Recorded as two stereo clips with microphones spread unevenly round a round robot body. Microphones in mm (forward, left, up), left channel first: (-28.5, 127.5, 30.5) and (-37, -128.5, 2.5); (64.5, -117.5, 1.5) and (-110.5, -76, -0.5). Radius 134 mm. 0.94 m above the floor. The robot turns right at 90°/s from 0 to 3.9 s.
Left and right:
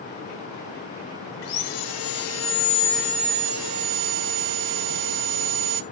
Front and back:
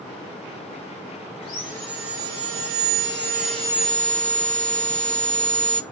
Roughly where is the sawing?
Ahead left.